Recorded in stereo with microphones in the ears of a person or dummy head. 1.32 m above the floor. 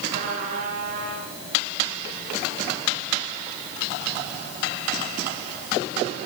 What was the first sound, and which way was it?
A trumpet, 45° right (ahead or behind).